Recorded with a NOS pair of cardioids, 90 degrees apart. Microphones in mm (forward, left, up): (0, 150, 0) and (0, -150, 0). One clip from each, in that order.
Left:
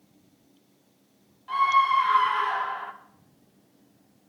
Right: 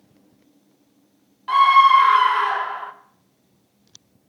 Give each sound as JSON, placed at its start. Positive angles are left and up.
{"t": 1.5, "sound": "a scream", "azimuth_deg": -70, "distance_m": 1.0}